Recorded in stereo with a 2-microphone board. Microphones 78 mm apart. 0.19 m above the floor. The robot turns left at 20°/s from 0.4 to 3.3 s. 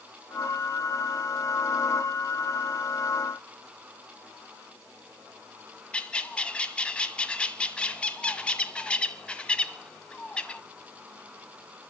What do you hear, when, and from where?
5.9 s a bird: 15° left (ahead or behind), 1.5 m